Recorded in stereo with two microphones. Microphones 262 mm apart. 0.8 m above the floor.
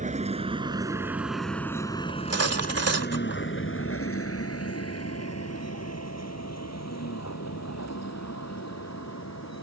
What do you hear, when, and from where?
0.0 s a vehicle: 30° right (ahead or behind); by 9.6 s 85° left
2.1 s cutlery clinking: 70° right (ahead or behind)